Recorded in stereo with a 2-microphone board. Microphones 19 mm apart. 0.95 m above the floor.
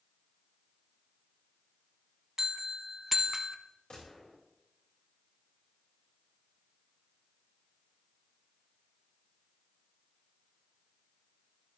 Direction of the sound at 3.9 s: 60° left (ahead or behind).